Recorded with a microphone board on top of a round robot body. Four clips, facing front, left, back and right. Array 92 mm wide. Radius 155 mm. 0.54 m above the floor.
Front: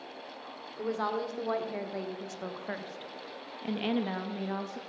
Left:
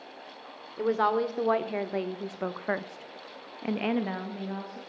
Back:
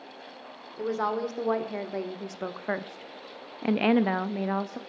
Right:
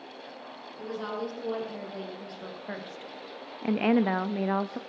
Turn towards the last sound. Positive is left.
turn(degrees=-120)